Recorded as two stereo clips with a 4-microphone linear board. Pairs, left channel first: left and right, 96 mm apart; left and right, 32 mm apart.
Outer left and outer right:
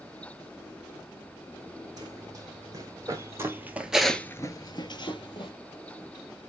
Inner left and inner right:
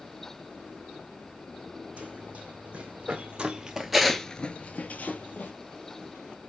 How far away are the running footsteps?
About 2 m.